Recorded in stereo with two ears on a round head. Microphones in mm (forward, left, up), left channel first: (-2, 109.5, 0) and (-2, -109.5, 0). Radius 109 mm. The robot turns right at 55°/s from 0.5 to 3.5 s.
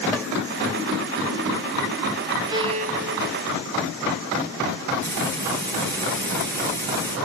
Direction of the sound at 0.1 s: 5° left (ahead or behind).